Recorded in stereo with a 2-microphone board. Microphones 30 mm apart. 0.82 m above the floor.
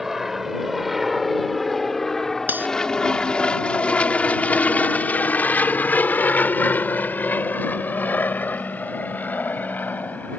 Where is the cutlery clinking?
80° right.